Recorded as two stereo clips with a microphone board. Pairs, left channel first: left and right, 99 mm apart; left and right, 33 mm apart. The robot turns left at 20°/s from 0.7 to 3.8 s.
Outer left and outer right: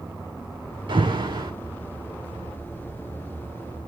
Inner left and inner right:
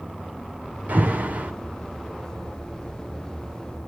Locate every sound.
0.9 s an alarm: 55° right (ahead or behind), 6 m; by 1.5 s 45° right (ahead or behind), 6 m